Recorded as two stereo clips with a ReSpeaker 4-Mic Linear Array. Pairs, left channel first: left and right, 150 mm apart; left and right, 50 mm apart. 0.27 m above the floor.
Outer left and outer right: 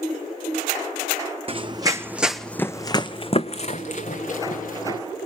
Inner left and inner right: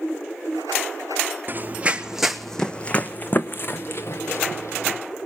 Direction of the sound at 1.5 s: 40° right (ahead or behind).